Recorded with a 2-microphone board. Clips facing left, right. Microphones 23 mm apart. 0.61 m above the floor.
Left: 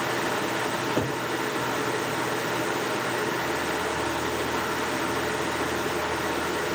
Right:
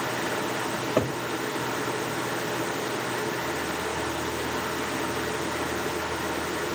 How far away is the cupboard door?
About 0.8 m.